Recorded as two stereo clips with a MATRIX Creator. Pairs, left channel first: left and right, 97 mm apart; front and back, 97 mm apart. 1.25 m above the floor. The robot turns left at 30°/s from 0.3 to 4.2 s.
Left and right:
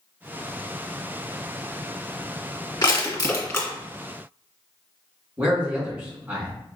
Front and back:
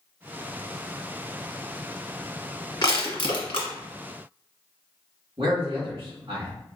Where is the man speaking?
155° right, 2.0 m.